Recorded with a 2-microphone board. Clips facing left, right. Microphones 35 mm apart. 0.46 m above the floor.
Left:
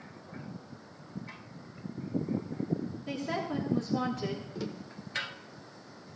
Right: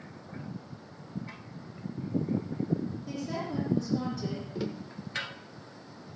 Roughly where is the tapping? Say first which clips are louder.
Right 3 dB; centre.